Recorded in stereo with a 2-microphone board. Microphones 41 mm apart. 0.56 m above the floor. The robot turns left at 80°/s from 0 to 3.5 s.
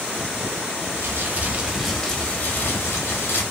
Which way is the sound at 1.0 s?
100° right.